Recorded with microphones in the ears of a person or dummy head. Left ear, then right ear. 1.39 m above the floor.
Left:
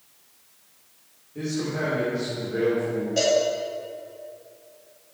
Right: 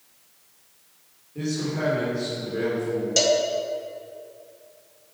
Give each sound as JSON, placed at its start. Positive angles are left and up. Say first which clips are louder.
{"t": 1.4, "sound": "a man speaking", "louder": "even", "side_deg": -5, "distance_m": 3.5}
{"t": 3.2, "sound": "a cowbell", "louder": "even", "side_deg": -40, "distance_m": 1.8}